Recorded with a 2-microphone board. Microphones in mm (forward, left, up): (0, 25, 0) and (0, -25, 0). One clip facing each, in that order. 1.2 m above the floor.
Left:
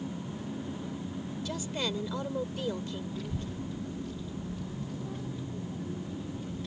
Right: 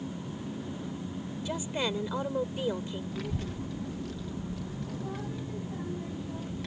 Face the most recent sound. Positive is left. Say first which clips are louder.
# right 1 dB
turn(degrees=-85)